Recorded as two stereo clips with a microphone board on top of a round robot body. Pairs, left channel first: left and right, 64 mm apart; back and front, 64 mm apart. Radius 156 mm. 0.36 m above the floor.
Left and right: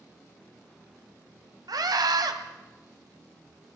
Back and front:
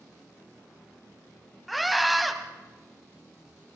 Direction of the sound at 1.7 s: 90° right.